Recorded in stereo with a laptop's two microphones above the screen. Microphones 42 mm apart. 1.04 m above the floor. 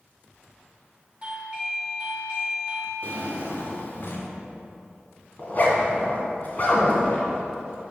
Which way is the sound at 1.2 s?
20° right (ahead or behind).